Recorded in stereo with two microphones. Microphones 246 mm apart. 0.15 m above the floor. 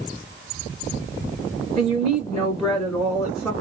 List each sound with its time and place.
1.8 s a woman speaking: centre (ahead or behind), 1.2 m